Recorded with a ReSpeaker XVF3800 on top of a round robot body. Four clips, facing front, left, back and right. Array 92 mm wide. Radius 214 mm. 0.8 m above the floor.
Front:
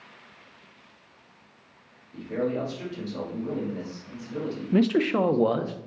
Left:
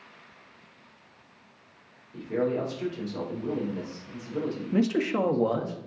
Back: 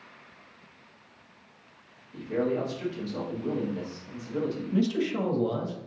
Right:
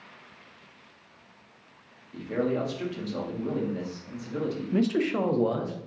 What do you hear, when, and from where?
2.1 s a man speaking: 90° right, 2 m
4.7 s a man speaking: 10° left, 0.7 m